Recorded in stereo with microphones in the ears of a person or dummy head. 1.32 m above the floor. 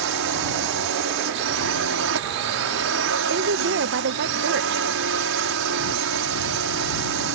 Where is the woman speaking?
60° right (ahead or behind).